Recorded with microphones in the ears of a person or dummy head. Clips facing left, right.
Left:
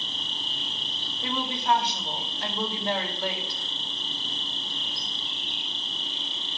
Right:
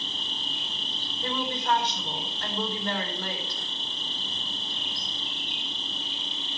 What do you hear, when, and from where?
0.0 s an insect: 10° right (ahead or behind), 6 m
1.2 s a woman speaking: 10° left (ahead or behind), 4.5 m